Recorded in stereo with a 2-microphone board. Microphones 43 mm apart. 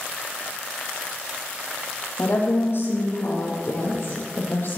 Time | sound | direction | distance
2.2 | a woman speaking | 60° left (ahead or behind) | 5.5 m